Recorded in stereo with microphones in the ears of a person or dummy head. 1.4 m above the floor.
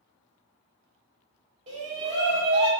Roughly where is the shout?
Right.